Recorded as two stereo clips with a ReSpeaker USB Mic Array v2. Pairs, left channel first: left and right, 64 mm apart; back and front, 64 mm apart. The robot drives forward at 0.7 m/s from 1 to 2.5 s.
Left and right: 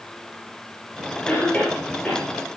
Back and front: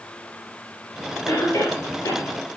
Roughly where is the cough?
Behind.